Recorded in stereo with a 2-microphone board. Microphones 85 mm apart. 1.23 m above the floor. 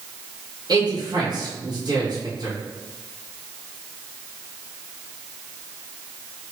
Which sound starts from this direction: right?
A man speaking, at 0.7 s.